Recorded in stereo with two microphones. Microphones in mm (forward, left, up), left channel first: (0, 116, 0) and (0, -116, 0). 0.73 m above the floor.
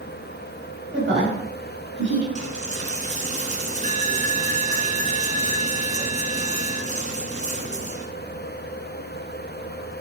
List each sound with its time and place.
0.9 s a woman speaking: 50° right (ahead or behind), 4.5 m; by 2.2 s 55° right (ahead or behind), 5 m
2.4 s a dropped coin: 35° right (ahead or behind), 1.6 m